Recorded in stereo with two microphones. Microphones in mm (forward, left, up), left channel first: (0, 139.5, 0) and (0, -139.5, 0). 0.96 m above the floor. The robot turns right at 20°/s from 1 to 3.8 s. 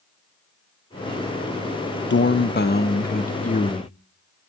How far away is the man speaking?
About 0.6 m.